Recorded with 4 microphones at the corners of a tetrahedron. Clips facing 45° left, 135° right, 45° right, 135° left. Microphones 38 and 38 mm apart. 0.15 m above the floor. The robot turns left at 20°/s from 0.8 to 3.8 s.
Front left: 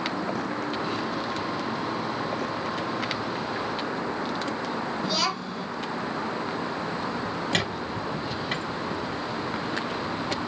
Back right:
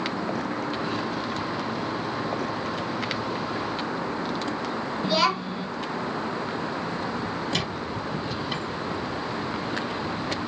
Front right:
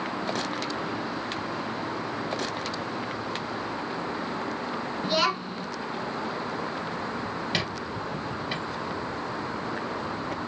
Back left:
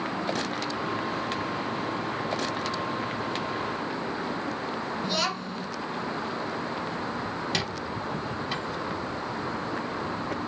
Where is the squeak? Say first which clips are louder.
Front left 1 dB, even; 30° left, 1.9 m.